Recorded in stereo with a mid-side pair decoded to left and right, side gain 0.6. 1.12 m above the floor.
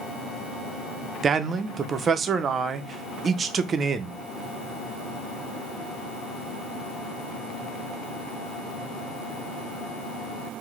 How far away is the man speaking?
About 0.6 m.